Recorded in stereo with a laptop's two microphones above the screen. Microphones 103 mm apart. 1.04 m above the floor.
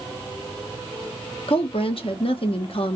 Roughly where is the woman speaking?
Left.